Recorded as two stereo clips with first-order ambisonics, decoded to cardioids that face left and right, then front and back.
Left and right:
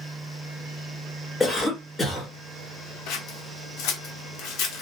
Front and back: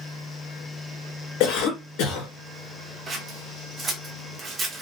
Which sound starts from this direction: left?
Scissors, at 3.1 s.